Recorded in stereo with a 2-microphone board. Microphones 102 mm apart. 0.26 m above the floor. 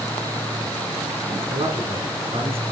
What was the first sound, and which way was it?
A man speaking, 65° right (ahead or behind).